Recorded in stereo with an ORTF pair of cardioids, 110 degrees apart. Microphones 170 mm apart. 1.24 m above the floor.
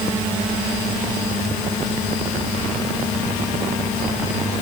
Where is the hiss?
No hiss in this recording.